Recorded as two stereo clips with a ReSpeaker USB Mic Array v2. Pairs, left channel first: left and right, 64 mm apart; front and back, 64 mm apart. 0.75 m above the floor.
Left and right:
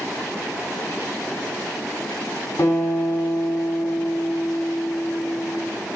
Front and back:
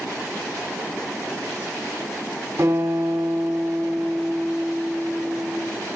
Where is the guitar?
135° left, 8 m.